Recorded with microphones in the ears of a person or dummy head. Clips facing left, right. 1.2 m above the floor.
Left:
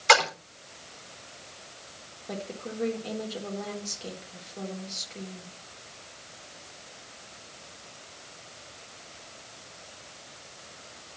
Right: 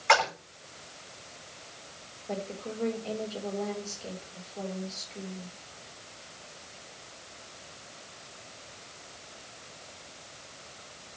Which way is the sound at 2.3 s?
20° left (ahead or behind).